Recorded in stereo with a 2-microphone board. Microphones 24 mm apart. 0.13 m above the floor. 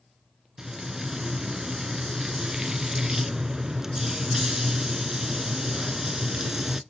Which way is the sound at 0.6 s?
20° right (ahead or behind).